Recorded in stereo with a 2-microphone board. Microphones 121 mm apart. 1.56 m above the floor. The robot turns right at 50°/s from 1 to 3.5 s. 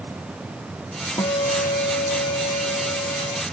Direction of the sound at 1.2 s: 35° left.